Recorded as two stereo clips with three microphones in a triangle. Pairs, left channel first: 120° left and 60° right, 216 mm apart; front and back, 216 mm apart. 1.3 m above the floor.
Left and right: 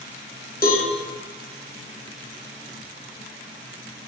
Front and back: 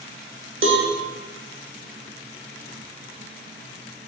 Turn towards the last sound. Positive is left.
turn(degrees=160)